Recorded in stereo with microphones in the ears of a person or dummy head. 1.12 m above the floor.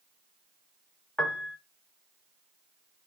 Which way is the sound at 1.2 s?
5° left (ahead or behind).